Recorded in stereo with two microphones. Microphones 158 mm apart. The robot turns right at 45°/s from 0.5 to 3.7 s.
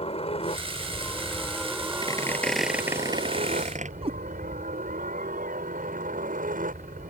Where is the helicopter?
135° left; by 7.1 s 80° right.